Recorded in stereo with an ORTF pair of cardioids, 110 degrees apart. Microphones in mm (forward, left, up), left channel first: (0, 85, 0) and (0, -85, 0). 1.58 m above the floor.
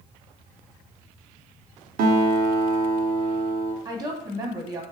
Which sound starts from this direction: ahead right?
A woman speaking, at 3.9 s.